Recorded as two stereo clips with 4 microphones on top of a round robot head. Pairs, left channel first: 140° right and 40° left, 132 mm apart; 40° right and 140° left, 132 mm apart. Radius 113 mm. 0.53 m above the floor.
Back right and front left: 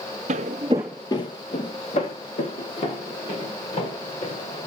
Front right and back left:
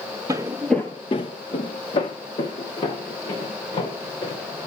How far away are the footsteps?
About 0.8 m.